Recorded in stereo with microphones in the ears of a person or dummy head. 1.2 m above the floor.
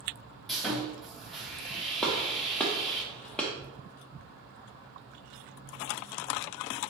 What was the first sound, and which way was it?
Sawing, centre (ahead or behind).